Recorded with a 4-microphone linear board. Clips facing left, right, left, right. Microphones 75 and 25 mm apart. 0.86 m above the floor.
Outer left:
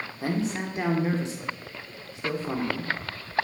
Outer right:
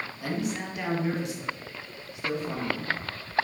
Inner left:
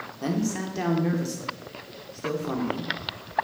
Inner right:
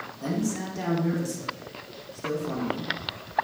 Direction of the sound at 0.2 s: 30° left (ahead or behind).